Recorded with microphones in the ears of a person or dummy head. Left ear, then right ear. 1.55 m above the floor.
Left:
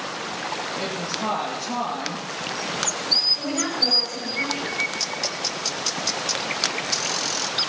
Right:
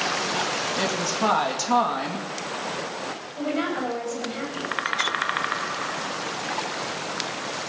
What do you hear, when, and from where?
0.8 s a woman speaking: 55° right (ahead or behind), 2.5 m
3.4 s a woman speaking: 10° right (ahead or behind), 8 m